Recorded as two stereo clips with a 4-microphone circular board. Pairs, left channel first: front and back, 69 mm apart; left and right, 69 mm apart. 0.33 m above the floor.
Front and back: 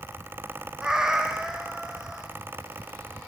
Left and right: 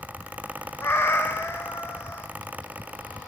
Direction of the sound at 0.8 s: 105° left.